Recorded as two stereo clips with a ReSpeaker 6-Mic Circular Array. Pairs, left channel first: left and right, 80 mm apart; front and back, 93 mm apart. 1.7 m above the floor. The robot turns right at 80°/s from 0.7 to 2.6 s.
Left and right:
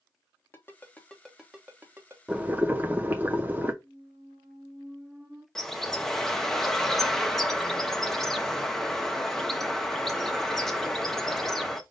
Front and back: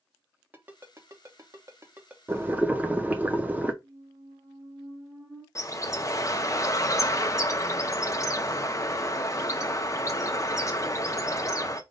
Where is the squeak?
165° right, 2 m.